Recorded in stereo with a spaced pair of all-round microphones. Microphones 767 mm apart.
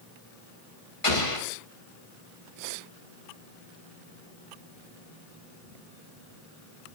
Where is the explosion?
40° left (ahead or behind), 2 m.